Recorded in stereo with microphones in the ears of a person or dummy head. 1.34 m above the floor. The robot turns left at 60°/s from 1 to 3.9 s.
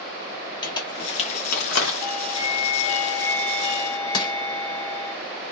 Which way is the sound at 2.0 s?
130° left.